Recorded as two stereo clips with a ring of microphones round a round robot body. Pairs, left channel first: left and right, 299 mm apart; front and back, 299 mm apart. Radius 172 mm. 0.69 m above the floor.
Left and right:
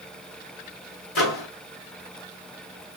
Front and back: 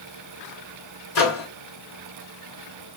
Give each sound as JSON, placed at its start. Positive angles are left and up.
{"t": 1.1, "sound": "a microwave", "azimuth_deg": 45, "distance_m": 1.6}